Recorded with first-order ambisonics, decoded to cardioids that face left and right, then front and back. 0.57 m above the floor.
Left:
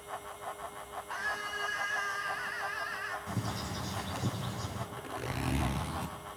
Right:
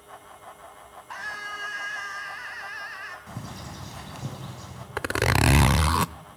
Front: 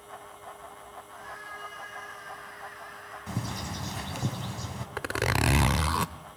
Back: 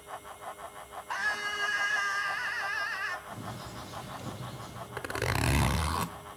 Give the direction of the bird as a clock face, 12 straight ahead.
12 o'clock.